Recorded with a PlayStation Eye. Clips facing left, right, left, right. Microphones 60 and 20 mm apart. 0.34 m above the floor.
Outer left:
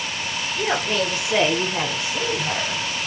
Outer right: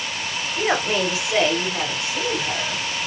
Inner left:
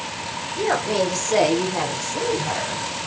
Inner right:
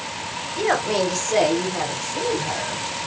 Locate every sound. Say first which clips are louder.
0.6 s a woman speaking: outer right 2 dB, even; 25° right (ahead or behind), 1.0 m; by 2.9 s 40° left (ahead or behind), 1.6 m